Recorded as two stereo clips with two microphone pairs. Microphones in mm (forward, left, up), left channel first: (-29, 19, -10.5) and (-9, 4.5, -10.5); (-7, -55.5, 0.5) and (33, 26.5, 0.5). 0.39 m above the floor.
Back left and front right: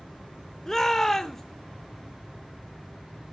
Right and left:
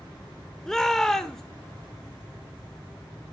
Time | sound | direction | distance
0.7 | a shout | 170° left | 0.8 m